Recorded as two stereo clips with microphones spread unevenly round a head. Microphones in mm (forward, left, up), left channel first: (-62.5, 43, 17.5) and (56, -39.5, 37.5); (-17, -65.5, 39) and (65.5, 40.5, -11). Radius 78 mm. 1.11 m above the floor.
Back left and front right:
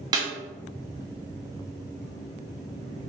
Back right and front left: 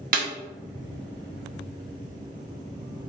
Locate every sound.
0.1 s a snare drum: 25° left, 0.7 m